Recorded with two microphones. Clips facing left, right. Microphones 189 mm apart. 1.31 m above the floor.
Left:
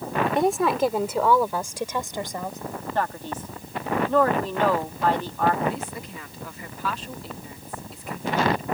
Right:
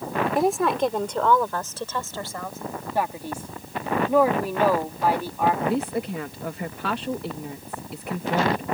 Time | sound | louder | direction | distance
0.3 | a woman speaking | even | centre (ahead or behind) | ?
3.0 | a man speaking | right 1 dB | 10° right (ahead or behind) | ?
5.6 | a woman speaking | right 5 dB | 65° right (ahead or behind) | ?